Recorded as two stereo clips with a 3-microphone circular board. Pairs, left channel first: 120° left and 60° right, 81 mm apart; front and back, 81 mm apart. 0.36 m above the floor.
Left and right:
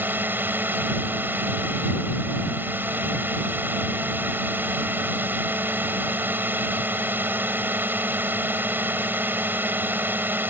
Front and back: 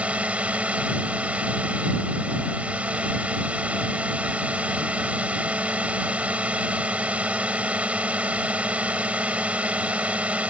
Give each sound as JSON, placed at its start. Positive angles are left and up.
{"t": 0.0, "sound": "a drone", "azimuth_deg": -115}